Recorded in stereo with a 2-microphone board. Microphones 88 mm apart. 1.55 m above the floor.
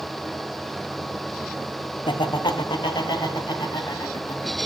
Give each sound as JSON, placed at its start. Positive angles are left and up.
{"t": 2.1, "sound": "laughter", "side_deg": 65, "distance_m": 0.5}